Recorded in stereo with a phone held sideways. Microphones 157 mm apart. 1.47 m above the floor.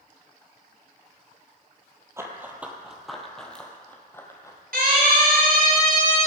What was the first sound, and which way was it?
Running footsteps, 20° right (ahead or behind).